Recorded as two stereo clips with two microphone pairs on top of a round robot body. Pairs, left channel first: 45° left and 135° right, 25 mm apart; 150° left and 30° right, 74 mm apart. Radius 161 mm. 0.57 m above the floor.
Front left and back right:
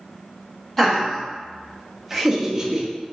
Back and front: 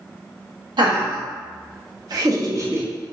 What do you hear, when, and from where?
0.8 s laughter: 35° right, 1.4 m; by 3.1 s 105° right, 0.7 m